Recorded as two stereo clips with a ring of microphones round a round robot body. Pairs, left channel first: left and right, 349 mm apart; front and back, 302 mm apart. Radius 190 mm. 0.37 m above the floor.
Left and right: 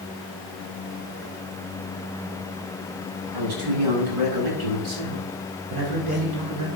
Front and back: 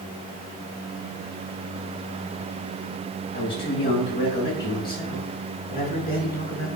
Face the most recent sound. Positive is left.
turn(degrees=-80)